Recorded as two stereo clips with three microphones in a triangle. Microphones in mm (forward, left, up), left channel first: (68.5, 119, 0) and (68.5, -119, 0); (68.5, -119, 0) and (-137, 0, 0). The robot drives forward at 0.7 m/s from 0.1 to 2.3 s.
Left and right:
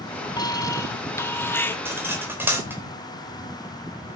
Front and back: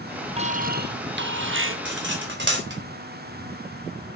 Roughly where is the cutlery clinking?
Behind.